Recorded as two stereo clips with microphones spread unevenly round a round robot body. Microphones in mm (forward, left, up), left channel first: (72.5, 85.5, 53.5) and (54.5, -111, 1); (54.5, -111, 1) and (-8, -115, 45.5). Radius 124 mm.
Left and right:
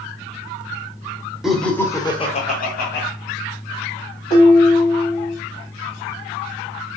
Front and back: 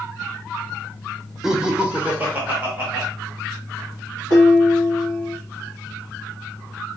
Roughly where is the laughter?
Ahead right.